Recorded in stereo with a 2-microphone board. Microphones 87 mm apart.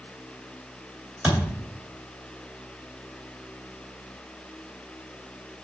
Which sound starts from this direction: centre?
A thud, at 1.2 s.